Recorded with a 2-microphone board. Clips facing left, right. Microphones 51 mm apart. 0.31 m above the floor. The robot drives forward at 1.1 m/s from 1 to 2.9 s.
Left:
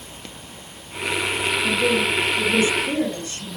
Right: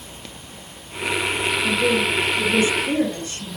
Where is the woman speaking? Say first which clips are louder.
Even; 25° right (ahead or behind), 3.5 m; by 3.6 s 35° right (ahead or behind), 2.5 m.